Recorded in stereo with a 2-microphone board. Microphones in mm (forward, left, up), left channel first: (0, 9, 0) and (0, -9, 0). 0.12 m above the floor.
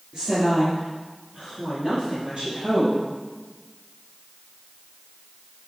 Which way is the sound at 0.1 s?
45° right (ahead or behind).